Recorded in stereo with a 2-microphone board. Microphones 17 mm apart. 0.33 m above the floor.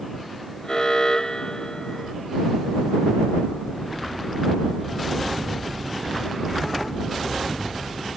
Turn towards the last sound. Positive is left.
turn(degrees=35)  # may be behind; listen again after turning